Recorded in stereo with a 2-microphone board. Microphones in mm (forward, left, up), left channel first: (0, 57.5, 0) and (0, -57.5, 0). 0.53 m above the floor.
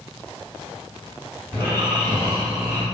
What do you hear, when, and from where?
1.5 s snoring: 20° left (ahead or behind), 1.7 m